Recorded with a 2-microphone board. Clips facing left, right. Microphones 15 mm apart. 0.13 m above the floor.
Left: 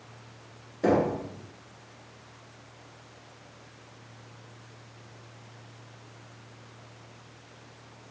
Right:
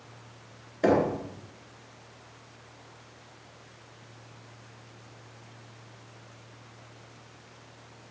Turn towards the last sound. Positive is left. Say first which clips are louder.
# right 1 dB
turn(degrees=-45)  # may be behind; listen again after turning